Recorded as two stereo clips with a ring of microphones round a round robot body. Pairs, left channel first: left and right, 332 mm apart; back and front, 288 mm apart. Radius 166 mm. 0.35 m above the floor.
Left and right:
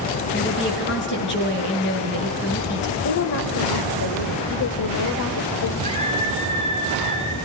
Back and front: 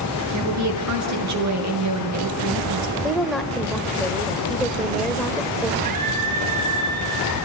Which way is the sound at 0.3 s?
30° left.